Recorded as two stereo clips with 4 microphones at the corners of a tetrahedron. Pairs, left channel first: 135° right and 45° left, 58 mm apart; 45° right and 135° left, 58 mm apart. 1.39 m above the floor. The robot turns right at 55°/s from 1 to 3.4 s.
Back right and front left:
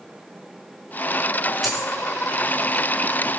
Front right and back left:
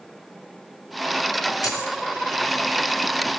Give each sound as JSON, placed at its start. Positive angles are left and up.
{"t": 1.6, "sound": "a dropped coin", "azimuth_deg": -45, "distance_m": 4.0}